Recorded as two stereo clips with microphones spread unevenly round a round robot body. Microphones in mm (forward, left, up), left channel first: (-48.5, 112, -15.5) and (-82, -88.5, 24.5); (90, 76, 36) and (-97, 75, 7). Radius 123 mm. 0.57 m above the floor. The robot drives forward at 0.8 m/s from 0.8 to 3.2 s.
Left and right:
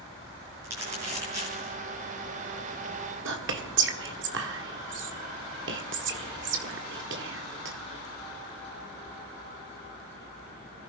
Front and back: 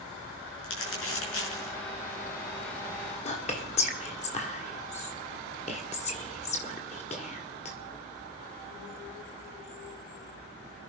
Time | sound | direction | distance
0.6 | crumpling | 20° right | 6.5 m
3.2 | whispering | 60° right | 1.6 m